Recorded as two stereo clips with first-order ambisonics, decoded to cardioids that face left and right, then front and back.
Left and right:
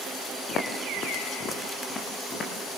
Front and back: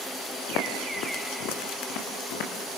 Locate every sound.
0.5 s footsteps: 35° left, 6 m; by 2.5 s 20° left, 6 m